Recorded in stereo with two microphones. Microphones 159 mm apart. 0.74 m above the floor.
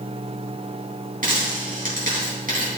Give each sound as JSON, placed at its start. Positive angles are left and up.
{"t": 1.2, "sound": "a dropped coin", "side_deg": -60, "distance_m": 3.0}